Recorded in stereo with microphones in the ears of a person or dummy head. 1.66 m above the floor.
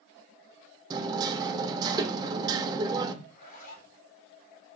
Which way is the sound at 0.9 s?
25° right (ahead or behind).